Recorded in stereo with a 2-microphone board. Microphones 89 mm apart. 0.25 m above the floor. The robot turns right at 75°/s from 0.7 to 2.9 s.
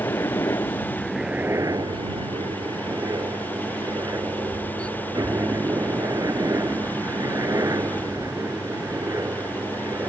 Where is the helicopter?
30° left (ahead or behind); by 10.1 s 35° right (ahead or behind).